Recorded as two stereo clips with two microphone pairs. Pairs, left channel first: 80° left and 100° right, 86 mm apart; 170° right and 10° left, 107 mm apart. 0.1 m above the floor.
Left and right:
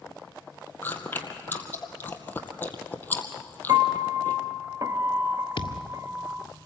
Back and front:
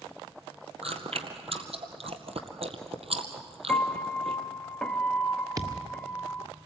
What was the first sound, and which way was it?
Chewing, 10° left.